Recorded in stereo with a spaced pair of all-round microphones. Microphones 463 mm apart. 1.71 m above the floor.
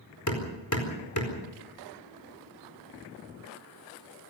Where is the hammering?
40° left (ahead or behind), 4.5 m.